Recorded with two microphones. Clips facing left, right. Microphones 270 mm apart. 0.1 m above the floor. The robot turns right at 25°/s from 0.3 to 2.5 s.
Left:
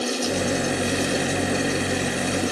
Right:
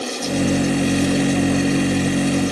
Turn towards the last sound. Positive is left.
No sound to turn to.